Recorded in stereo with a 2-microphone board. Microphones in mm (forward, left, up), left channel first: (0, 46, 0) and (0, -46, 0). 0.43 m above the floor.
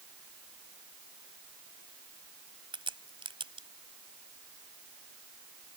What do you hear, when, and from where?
2.7 s a crack: 70° right (ahead or behind)